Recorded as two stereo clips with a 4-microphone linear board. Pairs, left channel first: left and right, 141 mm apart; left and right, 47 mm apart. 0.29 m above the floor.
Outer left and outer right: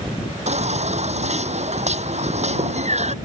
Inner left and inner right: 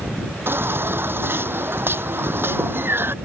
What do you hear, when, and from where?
0.5 s a baby crying: 55° right (ahead or behind)